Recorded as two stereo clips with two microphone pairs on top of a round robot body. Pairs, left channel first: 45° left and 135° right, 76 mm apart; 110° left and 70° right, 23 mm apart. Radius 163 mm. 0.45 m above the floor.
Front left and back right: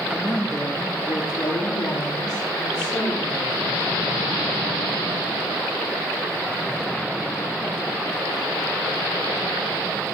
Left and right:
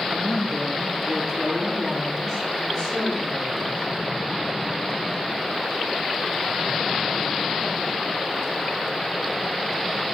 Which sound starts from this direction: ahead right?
A woman speaking, at 0.1 s.